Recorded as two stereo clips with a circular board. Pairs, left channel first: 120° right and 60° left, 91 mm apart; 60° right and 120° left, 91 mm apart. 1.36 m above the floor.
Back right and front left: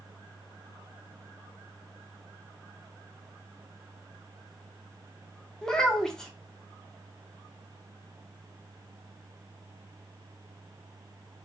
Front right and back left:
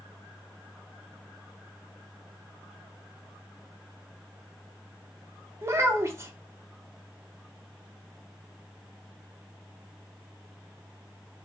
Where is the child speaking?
160° left, 0.6 m.